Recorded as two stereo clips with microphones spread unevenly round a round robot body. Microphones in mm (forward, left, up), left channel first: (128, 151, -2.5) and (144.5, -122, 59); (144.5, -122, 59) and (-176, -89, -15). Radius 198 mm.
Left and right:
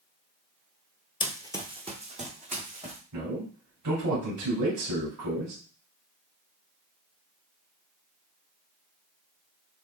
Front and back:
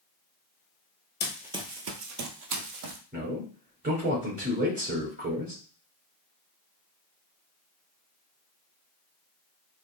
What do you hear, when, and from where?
1.2 s running footsteps: 15° left, 0.7 m; by 3.0 s 160° right, 1.5 m
3.1 s a man speaking: 130° right, 3 m